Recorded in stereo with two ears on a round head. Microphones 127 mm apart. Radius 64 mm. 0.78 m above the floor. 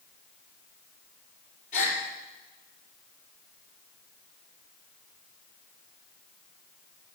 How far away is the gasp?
About 4 m.